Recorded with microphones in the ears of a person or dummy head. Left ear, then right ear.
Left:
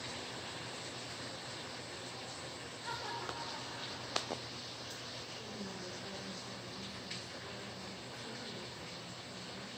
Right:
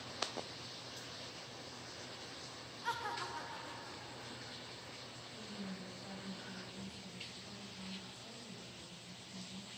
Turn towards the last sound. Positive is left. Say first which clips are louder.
# left 3 dB
turn(degrees=-10)  # may be behind; listen again after turning